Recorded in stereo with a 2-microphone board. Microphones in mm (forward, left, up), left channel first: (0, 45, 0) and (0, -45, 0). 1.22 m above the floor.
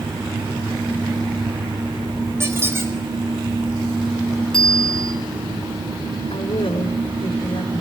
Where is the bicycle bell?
5° left (ahead or behind), 6 m.